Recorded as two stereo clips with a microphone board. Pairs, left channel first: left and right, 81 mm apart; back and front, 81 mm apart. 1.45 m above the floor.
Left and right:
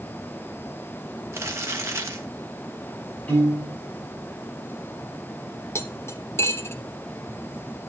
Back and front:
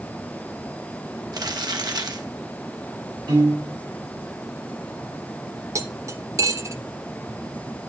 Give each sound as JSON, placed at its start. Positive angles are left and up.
{"t": 1.3, "sound": "crumpling", "azimuth_deg": -35, "distance_m": 1.9}
{"t": 3.3, "sound": "a piano", "azimuth_deg": 20, "distance_m": 6.5}
{"t": 5.8, "sound": "cutlery clinking", "azimuth_deg": 40, "distance_m": 1.0}